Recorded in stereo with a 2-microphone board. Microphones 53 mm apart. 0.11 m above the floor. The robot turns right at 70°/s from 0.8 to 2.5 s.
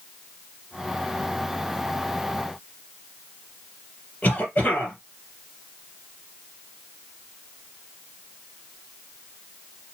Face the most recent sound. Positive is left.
turn(degrees=30)  # may be behind; listen again after turning